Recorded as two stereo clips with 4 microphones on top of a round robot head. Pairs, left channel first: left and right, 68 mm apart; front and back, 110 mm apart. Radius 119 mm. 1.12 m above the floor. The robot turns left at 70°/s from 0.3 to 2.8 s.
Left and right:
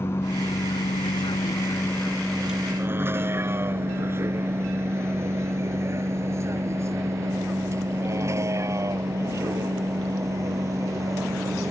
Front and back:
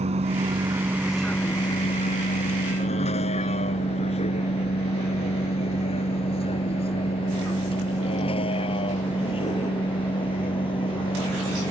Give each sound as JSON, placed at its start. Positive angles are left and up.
{"t": 0.0, "sound": "a vehicle", "azimuth_deg": 155}